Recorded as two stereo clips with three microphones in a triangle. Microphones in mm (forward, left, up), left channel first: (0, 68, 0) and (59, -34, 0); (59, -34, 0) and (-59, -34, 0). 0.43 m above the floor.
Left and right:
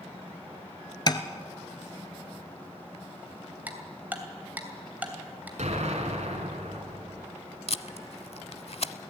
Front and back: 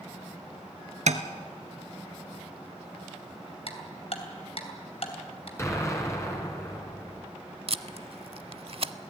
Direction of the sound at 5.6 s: 65° right.